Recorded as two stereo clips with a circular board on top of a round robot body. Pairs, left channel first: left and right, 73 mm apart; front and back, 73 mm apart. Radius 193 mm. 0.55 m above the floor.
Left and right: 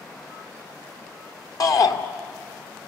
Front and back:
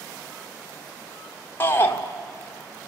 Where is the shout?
60° left, 2 m.